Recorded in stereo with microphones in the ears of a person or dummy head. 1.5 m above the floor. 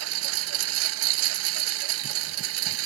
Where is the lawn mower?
80° right.